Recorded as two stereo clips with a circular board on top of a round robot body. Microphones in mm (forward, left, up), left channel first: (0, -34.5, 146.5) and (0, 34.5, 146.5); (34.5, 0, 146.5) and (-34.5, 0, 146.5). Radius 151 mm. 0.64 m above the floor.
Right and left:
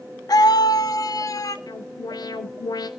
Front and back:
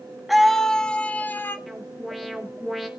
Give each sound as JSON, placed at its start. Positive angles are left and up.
{"t": 0.3, "sound": "a scream", "azimuth_deg": -90, "distance_m": 1.5}
{"t": 1.7, "sound": "an alarm", "azimuth_deg": -90, "distance_m": 3.5}